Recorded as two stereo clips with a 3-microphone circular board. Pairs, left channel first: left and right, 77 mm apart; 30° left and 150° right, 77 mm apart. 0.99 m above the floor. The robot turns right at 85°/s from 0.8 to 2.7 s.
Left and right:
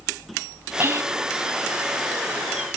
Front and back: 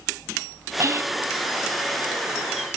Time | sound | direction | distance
0.8 | whispering | 135° right | 1.0 m